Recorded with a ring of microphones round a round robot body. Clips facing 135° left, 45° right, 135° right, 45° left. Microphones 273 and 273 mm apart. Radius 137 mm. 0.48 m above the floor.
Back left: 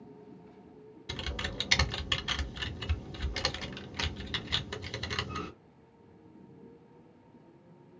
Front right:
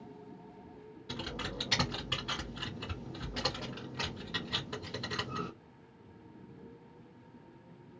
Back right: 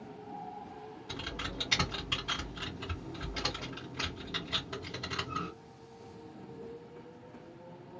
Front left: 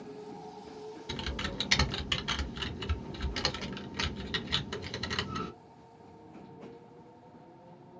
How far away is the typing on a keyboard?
About 1.1 m.